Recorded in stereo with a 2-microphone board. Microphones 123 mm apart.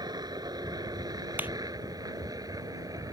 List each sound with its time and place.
0.0 s a helicopter: 35° right (ahead or behind); by 3.1 s 30° right (ahead or behind)
1.4 s a clap: 15° right (ahead or behind)